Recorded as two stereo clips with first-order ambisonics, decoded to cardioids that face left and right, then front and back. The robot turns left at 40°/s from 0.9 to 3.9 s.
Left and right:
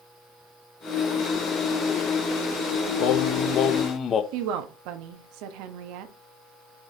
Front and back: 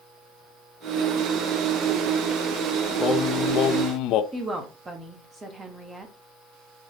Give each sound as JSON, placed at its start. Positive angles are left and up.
{"t": 3.0, "sound": "singing", "azimuth_deg": 70, "distance_m": 0.6}
{"t": 4.3, "sound": "a woman speaking", "azimuth_deg": -100, "distance_m": 1.4}